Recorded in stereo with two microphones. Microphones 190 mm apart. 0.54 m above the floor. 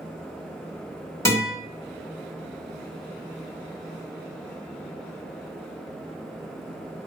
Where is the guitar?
15° left (ahead or behind), 2 m.